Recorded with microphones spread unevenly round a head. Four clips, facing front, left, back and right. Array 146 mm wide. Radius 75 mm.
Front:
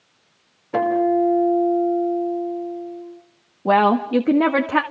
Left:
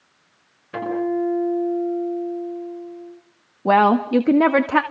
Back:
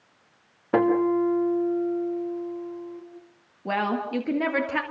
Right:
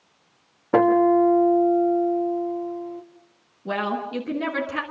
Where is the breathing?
I don't hear breathing.